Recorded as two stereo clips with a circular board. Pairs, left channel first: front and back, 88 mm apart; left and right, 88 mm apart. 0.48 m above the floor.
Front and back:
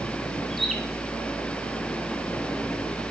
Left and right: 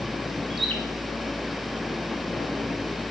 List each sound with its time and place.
0.5 s a bird: 90° right, 1.6 m